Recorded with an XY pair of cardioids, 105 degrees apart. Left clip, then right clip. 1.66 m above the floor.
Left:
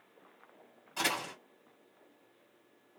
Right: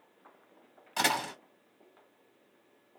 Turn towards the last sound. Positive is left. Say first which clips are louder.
# right 4 dB
turn(degrees=-65)